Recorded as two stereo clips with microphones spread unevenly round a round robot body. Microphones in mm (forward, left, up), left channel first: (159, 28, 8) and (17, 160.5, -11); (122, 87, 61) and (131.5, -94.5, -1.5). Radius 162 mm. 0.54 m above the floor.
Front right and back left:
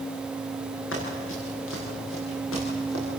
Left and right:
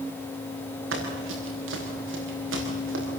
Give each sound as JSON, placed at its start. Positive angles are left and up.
{"t": 0.9, "sound": "running footsteps", "azimuth_deg": -95, "distance_m": 6.5}